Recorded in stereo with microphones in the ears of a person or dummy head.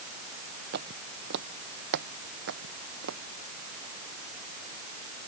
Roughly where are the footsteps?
Right.